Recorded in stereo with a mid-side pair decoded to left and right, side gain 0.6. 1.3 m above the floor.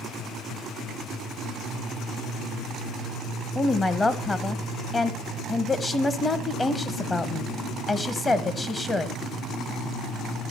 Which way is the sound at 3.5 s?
15° left.